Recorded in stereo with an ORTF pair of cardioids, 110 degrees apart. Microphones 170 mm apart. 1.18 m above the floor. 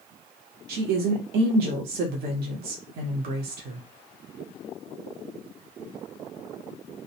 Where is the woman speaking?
70° right, 0.8 m.